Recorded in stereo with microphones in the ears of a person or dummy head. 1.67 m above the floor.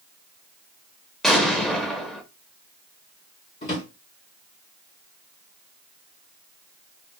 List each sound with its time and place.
1.2 s an explosion: centre (ahead or behind), 0.6 m
3.6 s a drawer: 35° left (ahead or behind), 1.9 m